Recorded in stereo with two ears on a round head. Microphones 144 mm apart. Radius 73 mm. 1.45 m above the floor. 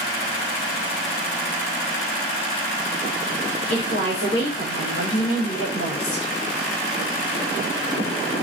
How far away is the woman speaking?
About 1.7 m.